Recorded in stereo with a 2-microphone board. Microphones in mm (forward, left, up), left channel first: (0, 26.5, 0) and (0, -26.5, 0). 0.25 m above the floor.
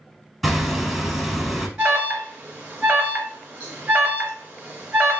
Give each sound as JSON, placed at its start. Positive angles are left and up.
{"t": 0.4, "sound": "hammering", "side_deg": 0, "distance_m": 0.8}
{"t": 1.8, "sound": "an alarm", "side_deg": -20, "distance_m": 1.1}